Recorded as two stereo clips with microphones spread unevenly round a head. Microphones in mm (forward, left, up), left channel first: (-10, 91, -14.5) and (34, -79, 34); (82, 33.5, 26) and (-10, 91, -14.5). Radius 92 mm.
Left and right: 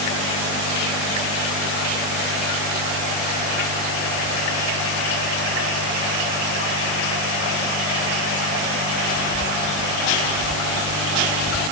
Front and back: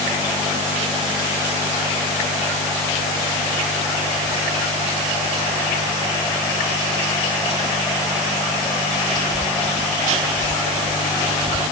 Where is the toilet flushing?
I don't hear a toilet flushing.